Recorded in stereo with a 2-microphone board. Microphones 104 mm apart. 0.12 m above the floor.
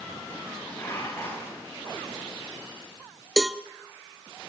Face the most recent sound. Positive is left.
turn(degrees=-5)  # may be behind; listen again after turning